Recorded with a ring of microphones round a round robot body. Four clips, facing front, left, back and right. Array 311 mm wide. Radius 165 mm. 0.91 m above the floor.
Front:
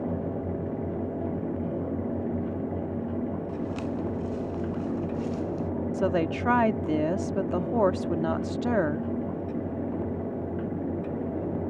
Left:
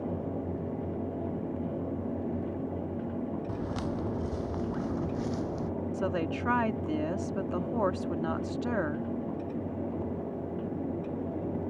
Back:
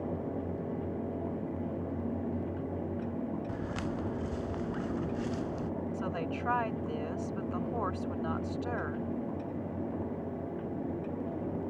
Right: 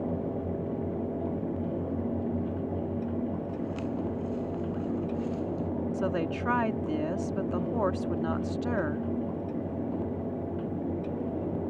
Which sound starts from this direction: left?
Footsteps, at 3.5 s.